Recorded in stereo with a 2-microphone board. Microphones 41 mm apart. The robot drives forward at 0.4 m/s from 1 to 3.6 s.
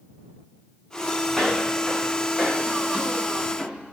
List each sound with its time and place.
1.3 s footsteps: 5° left (ahead or behind), 5.5 m; by 3.9 s 15° right (ahead or behind), 7.5 m